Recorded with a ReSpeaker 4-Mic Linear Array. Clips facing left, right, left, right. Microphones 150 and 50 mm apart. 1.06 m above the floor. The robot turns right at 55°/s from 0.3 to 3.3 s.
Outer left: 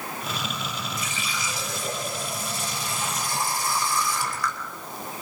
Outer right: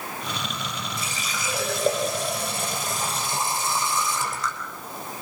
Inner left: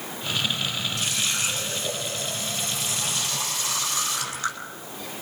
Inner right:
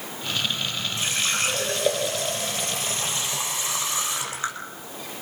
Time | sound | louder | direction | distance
1.0 | a running tap | even, inner right 5 dB | 150° right | 3.5 m